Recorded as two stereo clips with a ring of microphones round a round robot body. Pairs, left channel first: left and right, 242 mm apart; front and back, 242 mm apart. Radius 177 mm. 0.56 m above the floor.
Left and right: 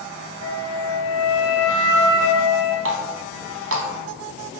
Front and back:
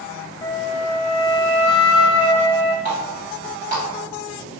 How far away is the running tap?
About 1.0 m.